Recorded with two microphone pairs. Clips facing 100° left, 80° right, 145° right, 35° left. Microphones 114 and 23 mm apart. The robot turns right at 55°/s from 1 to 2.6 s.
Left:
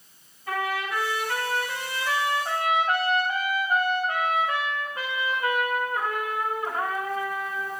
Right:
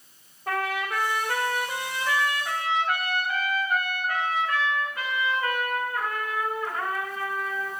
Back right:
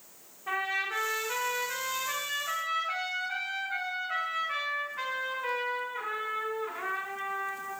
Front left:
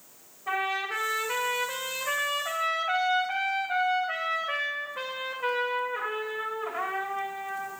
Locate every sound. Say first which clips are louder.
0.5 s a trumpet: even, front left 2 dB; 55° right, 2.5 m; by 7.7 s 35° left, 2.5 m